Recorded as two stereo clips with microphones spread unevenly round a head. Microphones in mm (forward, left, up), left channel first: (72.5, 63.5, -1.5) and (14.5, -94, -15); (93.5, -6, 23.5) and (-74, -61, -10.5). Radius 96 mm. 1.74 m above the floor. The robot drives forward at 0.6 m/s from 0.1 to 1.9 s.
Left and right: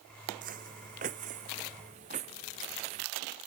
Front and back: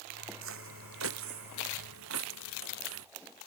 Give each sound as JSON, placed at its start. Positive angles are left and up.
{"t": 0.4, "sound": "footsteps", "azimuth_deg": -160}